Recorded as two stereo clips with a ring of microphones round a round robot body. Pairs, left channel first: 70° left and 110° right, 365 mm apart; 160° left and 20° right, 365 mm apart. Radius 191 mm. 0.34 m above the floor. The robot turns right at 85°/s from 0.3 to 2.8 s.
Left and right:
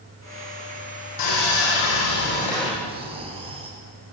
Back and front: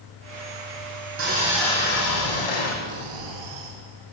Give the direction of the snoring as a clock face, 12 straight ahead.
1 o'clock.